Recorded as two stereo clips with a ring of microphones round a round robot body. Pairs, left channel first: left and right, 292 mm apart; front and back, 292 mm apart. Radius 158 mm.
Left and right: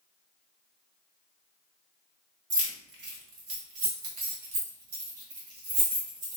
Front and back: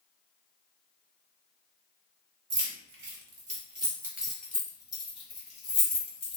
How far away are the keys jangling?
About 1.6 m.